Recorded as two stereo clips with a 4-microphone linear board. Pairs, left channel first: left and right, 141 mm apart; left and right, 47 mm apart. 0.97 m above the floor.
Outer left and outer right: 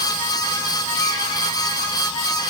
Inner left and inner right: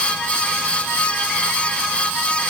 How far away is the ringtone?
I don't hear a ringtone.